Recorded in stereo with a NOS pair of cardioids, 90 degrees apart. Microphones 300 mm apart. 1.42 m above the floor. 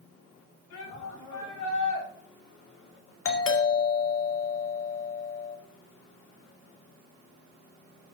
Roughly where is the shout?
Left.